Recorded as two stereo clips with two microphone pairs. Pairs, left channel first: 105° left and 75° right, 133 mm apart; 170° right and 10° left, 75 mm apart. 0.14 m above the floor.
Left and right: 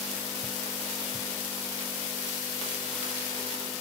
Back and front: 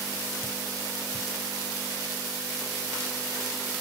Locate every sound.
Only background noise.